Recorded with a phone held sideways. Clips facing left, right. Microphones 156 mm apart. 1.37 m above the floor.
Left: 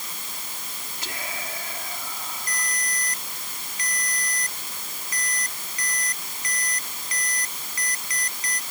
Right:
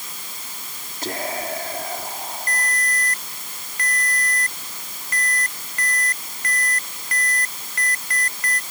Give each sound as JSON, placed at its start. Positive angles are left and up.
{"t": 1.0, "sound": "whispering", "side_deg": -50}
{"t": 2.5, "sound": "a ringtone", "side_deg": -65}